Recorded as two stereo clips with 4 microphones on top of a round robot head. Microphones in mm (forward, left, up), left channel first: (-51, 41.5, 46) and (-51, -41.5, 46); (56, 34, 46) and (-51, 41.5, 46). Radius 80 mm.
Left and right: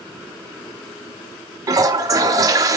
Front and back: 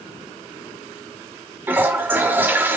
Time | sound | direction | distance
1.7 | a toilet flushing | 115° right | 0.7 m